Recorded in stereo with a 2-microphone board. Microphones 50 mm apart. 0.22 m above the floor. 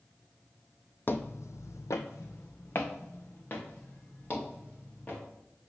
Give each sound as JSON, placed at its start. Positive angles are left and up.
{"t": 1.1, "sound": "footsteps", "side_deg": 40, "distance_m": 0.5}